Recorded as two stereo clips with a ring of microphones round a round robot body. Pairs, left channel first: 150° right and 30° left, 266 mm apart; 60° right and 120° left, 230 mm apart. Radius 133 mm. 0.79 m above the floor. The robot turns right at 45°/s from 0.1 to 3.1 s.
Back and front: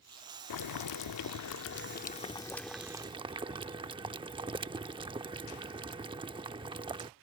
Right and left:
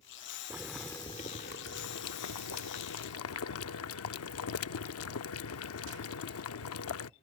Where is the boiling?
160° right; by 7.1 s 45° right.